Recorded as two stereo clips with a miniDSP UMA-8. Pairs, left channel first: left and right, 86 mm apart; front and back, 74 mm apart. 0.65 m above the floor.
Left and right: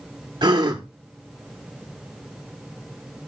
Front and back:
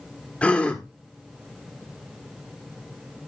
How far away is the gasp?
About 1.5 m.